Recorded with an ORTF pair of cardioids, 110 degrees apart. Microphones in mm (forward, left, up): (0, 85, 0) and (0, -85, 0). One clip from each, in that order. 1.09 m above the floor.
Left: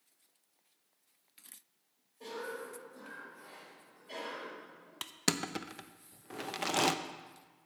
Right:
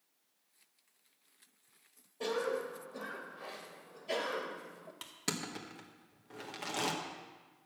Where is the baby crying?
I don't hear a baby crying.